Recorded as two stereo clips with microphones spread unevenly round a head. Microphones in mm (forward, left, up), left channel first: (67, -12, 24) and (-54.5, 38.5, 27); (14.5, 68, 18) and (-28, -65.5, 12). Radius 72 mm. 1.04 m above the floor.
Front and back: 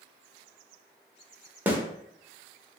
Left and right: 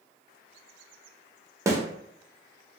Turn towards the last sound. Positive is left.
turn(degrees=-140)